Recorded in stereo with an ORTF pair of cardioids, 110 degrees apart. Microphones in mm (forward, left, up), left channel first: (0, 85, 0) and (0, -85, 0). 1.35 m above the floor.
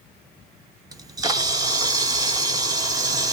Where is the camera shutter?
20° right, 0.6 m.